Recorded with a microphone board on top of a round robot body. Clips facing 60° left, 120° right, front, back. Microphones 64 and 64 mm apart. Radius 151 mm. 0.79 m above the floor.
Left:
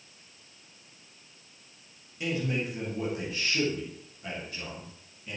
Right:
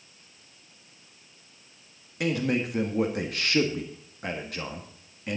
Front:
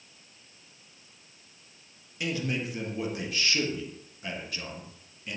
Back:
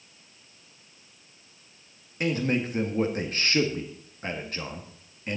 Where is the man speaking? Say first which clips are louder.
Right 4 dB, back 5 dB; 135° right, 2 m.